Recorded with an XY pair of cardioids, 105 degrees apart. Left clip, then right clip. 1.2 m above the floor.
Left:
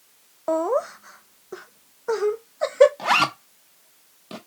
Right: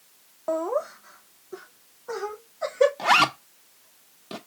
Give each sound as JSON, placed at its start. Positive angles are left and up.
{"t": 0.5, "sound": "laughter", "azimuth_deg": 30, "distance_m": 0.8}
{"t": 3.0, "sound": "a zipper", "azimuth_deg": -5, "distance_m": 1.2}